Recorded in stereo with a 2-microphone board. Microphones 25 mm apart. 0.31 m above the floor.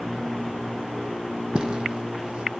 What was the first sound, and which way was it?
Footsteps, 50° right (ahead or behind).